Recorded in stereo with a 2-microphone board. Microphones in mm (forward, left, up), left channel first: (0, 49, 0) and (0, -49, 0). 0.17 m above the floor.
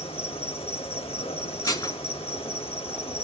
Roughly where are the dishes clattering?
Left.